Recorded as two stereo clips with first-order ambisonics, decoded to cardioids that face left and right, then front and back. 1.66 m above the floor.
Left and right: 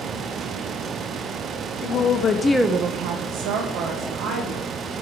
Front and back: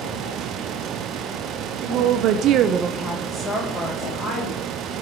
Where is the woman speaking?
140° left, 1.1 m; by 5.0 s 65° right, 2.5 m.